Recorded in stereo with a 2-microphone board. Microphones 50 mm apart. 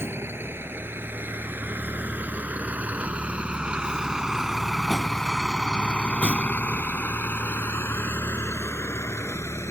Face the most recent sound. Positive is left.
turn(degrees=70)  # may be behind; listen again after turning